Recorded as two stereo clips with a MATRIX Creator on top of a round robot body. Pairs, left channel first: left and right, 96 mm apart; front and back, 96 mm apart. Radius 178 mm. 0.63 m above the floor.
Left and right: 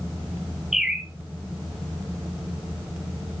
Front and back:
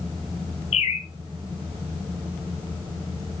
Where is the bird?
5° right, 0.7 m.